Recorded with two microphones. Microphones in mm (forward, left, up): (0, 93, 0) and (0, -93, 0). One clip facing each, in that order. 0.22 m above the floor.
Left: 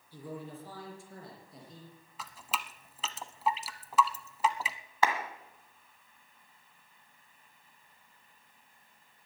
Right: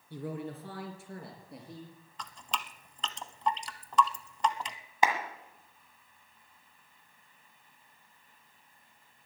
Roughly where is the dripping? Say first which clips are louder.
Even; centre.